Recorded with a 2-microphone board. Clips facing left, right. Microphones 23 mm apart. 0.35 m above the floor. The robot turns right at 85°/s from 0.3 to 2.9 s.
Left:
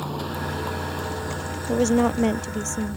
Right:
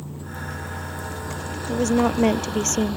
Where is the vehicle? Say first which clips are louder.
Left 6 dB; 75° left; by 3.0 s 65° right.